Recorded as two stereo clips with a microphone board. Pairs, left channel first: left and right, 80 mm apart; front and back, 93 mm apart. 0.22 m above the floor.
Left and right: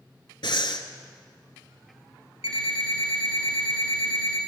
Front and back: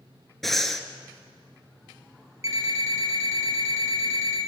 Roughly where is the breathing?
Left.